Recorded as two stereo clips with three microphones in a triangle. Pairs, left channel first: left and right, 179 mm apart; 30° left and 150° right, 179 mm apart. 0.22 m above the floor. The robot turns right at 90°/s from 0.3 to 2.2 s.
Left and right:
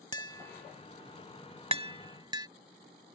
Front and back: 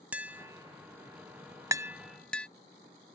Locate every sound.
0.1 s tapping: 140° left; by 2.5 s 50° right